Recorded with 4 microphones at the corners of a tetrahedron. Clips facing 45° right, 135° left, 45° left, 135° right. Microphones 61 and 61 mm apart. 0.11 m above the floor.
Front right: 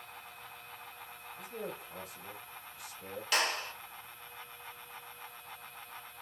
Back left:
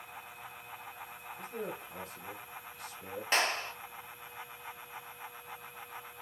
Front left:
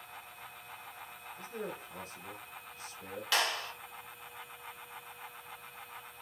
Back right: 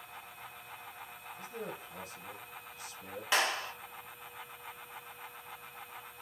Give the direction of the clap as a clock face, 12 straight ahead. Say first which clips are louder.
Back left 1 dB, back right 2 dB; 6 o'clock.